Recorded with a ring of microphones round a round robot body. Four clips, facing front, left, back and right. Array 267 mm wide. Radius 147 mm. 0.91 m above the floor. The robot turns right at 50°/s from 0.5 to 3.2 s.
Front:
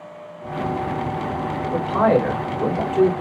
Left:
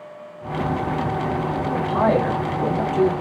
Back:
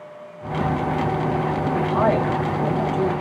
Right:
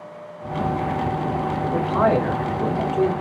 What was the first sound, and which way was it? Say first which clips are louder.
A man speaking: right 1 dB, front 2 dB; 35° right.